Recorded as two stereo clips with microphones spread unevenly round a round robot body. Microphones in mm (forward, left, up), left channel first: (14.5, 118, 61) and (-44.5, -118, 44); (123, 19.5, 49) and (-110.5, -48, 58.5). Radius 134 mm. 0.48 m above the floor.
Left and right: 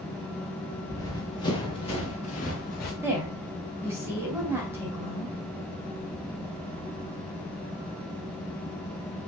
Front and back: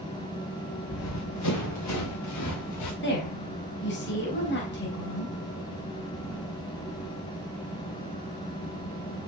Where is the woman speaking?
25° right, 3.5 m.